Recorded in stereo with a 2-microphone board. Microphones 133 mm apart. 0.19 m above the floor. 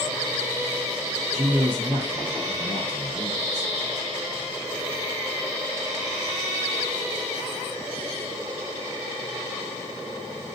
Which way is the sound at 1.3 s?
20° right (ahead or behind).